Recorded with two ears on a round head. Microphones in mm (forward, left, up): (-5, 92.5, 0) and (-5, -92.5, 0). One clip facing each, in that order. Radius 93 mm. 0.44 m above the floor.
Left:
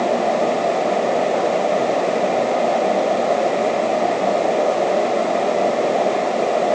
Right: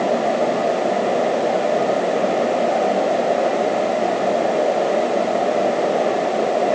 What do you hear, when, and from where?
Only background noise.